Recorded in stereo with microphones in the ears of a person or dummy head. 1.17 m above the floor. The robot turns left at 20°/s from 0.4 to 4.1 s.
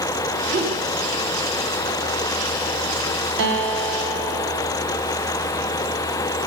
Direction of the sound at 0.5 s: 35° right (ahead or behind).